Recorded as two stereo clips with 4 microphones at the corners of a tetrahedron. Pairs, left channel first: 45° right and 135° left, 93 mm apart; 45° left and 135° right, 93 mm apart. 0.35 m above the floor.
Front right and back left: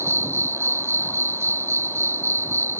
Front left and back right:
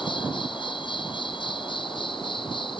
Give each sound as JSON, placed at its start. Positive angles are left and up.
{"t": 0.0, "sound": "an insect", "azimuth_deg": 75}